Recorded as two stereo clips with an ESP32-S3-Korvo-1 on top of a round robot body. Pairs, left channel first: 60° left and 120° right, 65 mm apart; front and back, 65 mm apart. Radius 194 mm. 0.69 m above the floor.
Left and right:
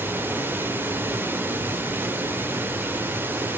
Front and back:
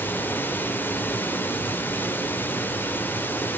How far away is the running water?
About 1.4 m.